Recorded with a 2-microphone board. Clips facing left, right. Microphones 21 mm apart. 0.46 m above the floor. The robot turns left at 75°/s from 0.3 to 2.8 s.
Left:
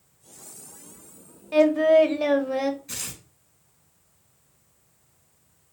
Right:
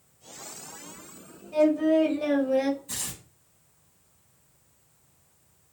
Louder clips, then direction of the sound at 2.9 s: Left 1 dB; 45° left (ahead or behind).